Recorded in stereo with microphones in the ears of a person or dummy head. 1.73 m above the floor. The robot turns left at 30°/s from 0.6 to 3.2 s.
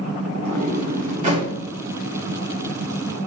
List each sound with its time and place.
0.4 s a sliding door: 50° right (ahead or behind), 1.6 m; by 1.5 s 30° right (ahead or behind), 1.6 m